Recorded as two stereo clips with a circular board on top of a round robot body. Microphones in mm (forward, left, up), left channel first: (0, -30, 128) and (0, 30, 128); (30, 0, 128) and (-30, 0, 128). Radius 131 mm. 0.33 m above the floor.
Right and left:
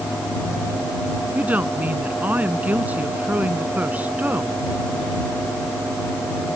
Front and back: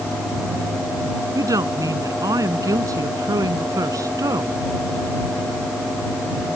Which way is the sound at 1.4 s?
155° left.